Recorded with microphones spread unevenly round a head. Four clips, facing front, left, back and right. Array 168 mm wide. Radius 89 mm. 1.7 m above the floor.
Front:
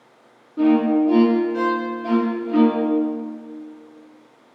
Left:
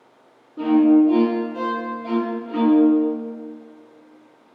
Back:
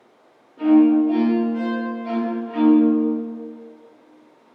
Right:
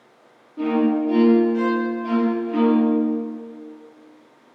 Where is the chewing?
No chewing in this recording.